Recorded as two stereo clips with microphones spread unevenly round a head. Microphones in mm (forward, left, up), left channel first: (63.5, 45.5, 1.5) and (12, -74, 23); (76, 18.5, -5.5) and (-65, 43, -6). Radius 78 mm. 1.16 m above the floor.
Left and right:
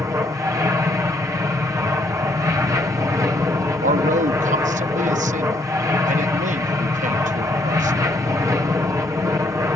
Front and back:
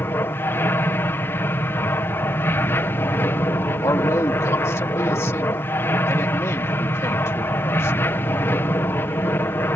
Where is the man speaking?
85° right.